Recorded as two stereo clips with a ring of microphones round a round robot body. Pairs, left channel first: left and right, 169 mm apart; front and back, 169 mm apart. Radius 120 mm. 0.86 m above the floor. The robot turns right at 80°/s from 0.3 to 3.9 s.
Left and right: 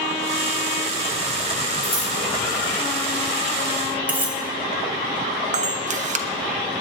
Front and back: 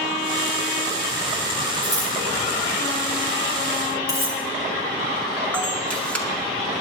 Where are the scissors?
155° left, 7 m; by 2.1 s 175° left, 7 m.